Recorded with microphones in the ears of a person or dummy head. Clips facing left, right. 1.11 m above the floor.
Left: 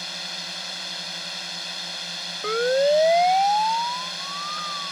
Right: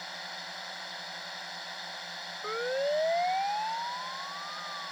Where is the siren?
80° left.